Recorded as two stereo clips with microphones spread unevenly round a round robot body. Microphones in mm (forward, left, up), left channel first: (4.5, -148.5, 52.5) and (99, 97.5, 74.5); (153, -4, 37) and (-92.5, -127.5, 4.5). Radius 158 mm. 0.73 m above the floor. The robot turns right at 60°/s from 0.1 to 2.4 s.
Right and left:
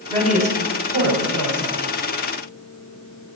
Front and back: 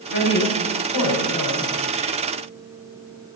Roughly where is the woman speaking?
Ahead.